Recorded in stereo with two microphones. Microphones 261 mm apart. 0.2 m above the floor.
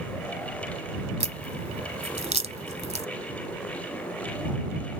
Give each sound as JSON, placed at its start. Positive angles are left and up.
{"t": 1.2, "sound": "a crack", "side_deg": -25}